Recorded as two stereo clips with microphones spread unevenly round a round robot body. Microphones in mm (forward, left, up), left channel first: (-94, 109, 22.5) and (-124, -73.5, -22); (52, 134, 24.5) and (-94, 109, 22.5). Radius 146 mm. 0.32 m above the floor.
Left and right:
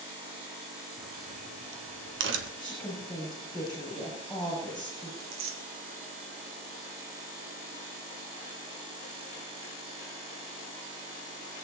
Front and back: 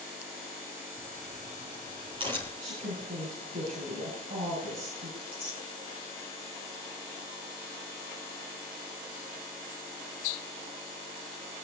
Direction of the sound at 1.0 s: 100° right.